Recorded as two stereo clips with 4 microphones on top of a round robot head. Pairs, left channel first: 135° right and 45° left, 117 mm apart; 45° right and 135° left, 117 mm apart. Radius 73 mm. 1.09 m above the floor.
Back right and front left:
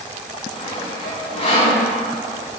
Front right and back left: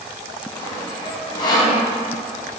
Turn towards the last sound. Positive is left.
turn(degrees=-95)